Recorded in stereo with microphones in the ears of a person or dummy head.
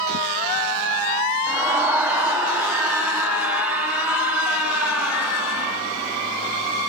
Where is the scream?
5° right (ahead or behind), 3.5 m; by 5.8 s centre (ahead or behind), 6 m.